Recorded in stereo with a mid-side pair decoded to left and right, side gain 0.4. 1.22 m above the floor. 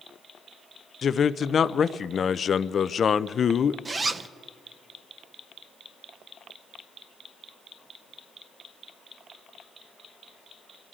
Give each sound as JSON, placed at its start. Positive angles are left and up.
{"t": 1.0, "sound": "a man speaking", "azimuth_deg": 50, "distance_m": 0.5}
{"t": 3.9, "sound": "a zipper", "azimuth_deg": -35, "distance_m": 0.7}